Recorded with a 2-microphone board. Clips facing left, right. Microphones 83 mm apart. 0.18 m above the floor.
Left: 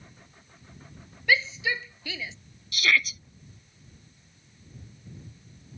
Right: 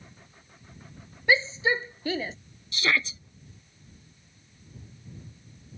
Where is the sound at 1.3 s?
30° right (ahead or behind); by 2.4 s 45° right (ahead or behind).